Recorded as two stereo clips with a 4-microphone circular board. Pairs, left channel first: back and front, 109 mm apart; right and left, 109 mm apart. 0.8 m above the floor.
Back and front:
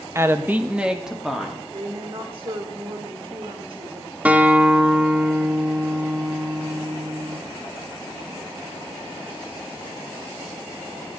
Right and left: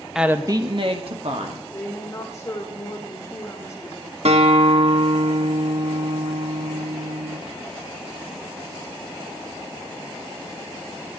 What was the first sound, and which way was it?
A woman speaking, 10° left.